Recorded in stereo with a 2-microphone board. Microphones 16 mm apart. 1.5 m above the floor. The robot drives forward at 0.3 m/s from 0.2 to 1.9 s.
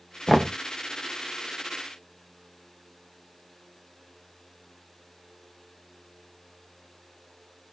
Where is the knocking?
10° right (ahead or behind), 0.9 m.